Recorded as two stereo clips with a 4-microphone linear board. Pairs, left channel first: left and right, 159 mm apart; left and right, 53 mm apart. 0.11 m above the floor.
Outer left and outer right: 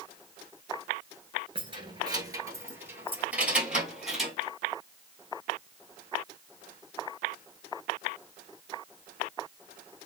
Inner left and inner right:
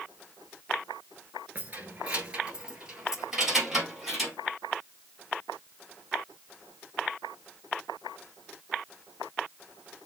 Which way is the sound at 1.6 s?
35° right (ahead or behind).